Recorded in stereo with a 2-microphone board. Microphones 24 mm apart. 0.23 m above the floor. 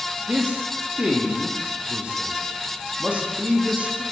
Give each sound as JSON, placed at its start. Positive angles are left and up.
{"t": 0.3, "sound": "a man speaking", "side_deg": -55, "distance_m": 8.0}